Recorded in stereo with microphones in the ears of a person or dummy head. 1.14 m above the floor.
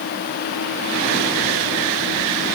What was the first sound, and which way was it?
Only background noise.